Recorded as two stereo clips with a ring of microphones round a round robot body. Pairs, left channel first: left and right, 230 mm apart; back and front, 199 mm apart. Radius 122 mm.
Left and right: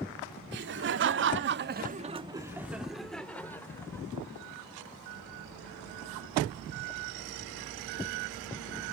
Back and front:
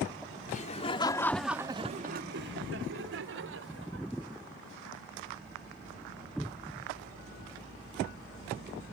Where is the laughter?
125° right; by 4.1 s 10° left.